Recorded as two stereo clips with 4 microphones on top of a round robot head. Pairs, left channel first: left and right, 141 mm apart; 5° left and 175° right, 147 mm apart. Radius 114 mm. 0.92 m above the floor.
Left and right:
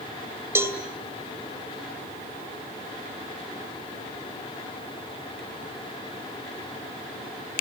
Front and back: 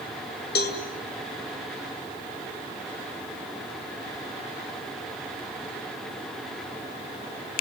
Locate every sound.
0.6 s a cowbell: 15° right, 2.5 m